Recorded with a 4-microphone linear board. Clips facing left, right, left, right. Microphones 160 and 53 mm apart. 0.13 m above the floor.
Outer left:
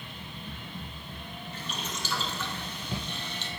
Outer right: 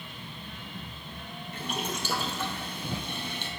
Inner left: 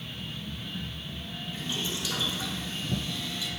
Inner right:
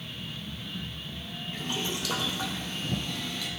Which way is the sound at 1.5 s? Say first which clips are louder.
Outer right 6 dB, inner right 2 dB; 55° right (ahead or behind).